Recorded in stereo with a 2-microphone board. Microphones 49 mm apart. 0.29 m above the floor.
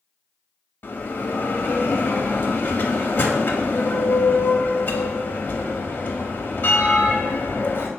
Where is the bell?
45° left (ahead or behind), 0.6 m.